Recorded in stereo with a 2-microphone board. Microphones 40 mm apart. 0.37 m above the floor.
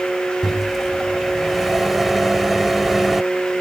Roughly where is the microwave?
Centre.